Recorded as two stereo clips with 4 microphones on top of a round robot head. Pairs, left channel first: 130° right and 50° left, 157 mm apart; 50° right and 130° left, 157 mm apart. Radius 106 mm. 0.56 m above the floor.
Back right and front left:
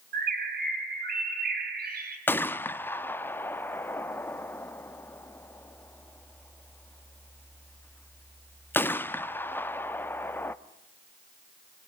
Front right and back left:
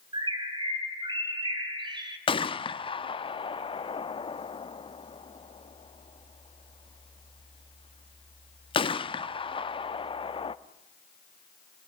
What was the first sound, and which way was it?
A bird, 70° left.